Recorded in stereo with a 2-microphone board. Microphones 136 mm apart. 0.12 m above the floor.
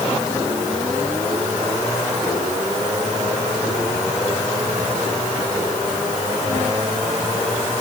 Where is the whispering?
I don't hear whispering.